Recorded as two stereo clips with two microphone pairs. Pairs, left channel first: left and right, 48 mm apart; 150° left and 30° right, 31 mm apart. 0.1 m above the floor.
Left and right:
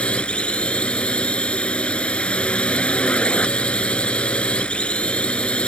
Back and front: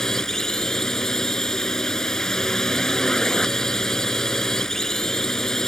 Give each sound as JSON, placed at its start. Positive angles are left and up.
{"t": 0.0, "sound": "a drone", "azimuth_deg": 110}